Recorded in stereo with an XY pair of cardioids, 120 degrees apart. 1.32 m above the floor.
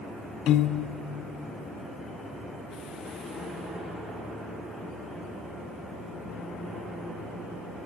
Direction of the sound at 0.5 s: 65° left.